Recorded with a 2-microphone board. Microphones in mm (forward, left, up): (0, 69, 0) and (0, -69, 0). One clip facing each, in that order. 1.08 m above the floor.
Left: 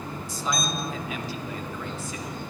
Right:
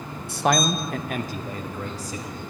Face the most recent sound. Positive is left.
turn(degrees=-35)  # may be behind; listen again after turning